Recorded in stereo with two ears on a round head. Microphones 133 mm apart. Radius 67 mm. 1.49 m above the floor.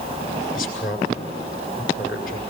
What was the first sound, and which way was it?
A man speaking, 65° left (ahead or behind).